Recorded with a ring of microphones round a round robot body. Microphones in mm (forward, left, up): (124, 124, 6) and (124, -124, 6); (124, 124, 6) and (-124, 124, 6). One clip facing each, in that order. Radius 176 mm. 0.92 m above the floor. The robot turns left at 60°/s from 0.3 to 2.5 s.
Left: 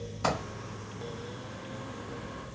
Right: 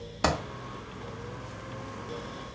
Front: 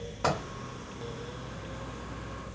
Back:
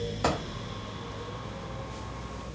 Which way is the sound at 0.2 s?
110° right.